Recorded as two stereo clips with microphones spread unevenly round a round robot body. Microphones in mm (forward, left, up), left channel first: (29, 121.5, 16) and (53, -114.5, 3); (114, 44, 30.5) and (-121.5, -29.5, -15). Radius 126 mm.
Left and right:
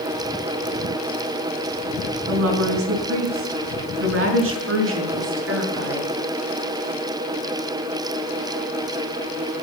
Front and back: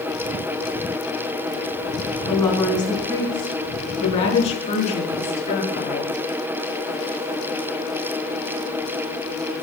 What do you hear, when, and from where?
2.3 s a woman speaking: 65° right, 4 m; by 6.1 s 45° right, 6.5 m